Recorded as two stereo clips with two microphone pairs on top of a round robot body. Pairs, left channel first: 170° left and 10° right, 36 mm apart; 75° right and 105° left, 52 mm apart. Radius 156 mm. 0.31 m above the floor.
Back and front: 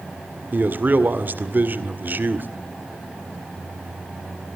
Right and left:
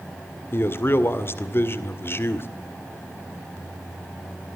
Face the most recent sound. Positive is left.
turn(degrees=-40)